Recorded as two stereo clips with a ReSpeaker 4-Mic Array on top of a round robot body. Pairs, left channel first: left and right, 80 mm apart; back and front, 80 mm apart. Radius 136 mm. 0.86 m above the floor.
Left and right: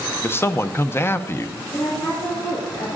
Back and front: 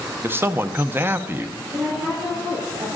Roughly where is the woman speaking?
Ahead left.